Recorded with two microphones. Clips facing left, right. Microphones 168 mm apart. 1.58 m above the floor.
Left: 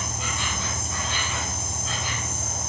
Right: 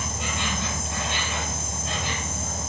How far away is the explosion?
No explosion in this recording.